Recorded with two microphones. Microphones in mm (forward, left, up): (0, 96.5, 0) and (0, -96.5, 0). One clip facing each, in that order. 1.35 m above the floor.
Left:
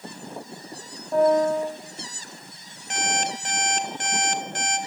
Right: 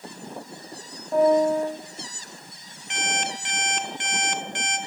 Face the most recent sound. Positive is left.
turn(degrees=40)  # may be behind; listen again after turning